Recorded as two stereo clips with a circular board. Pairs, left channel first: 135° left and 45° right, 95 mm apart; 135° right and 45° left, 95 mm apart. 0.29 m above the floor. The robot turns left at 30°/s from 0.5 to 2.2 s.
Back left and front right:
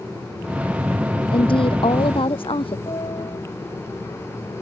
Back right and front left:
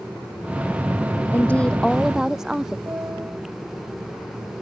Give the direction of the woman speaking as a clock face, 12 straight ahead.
7 o'clock.